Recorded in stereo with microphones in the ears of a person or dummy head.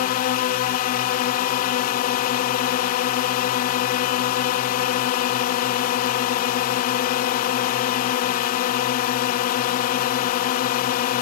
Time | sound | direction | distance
0.0 | a drone | 45° left (ahead or behind) | ?